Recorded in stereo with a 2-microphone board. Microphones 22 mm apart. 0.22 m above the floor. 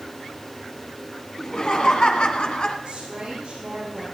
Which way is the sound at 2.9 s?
50° right (ahead or behind).